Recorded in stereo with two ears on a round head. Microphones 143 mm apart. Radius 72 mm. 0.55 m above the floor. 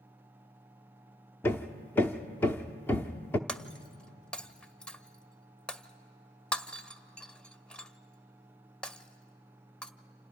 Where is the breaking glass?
5° left (ahead or behind), 0.5 m.